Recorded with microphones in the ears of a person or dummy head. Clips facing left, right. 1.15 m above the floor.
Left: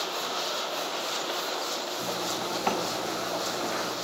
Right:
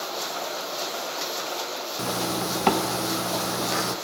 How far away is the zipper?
About 1.5 m.